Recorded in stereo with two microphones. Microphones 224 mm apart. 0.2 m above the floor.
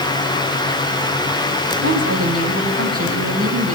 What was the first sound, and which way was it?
A woman speaking, 80° right.